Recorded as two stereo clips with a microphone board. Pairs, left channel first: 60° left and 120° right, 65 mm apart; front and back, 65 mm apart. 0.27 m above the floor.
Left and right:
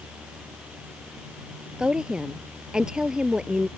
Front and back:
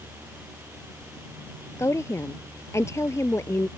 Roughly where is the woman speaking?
Ahead right.